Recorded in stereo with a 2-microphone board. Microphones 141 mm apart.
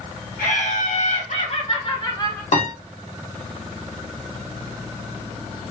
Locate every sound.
0.4 s laughter: 75° left (ahead or behind), 1.5 m; by 2.4 s 25° left (ahead or behind), 1.2 m
2.5 s a piano: 60° left (ahead or behind), 1.5 m